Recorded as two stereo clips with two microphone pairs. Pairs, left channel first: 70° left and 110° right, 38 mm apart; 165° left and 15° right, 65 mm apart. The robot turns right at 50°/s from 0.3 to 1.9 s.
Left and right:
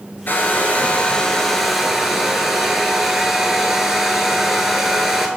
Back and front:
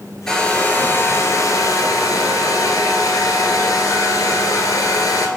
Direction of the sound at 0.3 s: 85° left.